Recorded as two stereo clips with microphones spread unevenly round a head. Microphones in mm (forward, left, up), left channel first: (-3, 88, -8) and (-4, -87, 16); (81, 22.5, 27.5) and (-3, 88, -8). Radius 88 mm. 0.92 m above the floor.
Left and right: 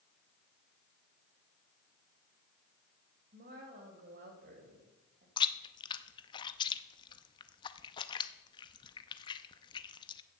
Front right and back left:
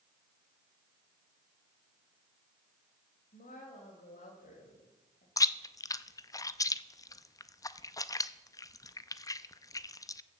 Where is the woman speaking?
50° right, 4 m.